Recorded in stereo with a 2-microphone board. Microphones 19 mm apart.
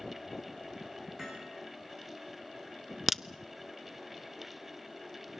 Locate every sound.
1.2 s hammering: 35° right (ahead or behind), 8.5 m
3.1 s a crack: 15° right (ahead or behind), 0.5 m